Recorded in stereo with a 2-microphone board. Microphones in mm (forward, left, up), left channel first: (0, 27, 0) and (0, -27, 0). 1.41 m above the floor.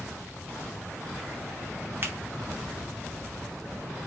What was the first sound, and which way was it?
A finger snap, 45° right (ahead or behind).